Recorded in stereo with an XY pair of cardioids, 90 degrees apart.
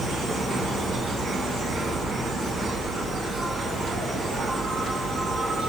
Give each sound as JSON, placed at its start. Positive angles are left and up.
{"t": 0.0, "sound": "an insect", "azimuth_deg": -65, "distance_m": 1.9}